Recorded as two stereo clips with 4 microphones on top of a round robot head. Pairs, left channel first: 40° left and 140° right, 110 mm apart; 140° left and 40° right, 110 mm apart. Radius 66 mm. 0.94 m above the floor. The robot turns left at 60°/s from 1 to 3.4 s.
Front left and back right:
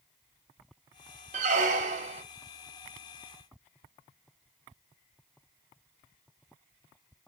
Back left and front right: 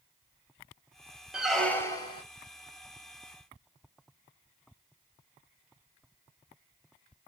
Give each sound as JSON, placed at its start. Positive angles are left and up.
{"t": 1.3, "sound": "a squeak", "azimuth_deg": -125, "distance_m": 0.9}